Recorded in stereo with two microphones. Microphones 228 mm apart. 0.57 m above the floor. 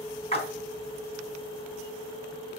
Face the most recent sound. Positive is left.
turn(degrees=25)  # may be behind; listen again after turning